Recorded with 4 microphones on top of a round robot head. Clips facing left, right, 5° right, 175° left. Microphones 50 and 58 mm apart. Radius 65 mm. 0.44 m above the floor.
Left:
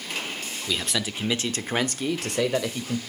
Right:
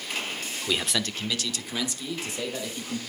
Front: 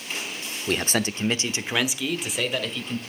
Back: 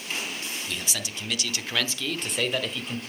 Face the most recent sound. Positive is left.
turn(degrees=90)